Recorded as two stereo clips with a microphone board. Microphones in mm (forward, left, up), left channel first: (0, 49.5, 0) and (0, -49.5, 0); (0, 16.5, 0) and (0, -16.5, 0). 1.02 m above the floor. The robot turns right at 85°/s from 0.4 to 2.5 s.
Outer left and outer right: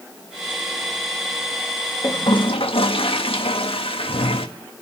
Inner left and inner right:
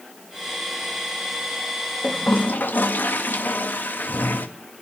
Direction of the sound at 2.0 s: 35° left.